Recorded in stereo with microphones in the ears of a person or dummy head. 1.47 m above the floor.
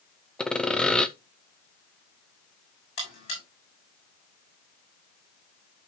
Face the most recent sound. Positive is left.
turn(degrees=45)  # may be behind; listen again after turning